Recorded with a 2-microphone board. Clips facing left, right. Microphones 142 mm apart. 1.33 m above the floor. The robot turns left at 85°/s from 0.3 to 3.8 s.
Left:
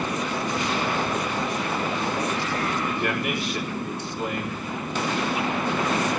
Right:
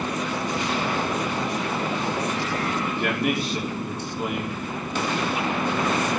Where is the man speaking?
105° right, 4 m; by 4.6 s 175° right, 4 m.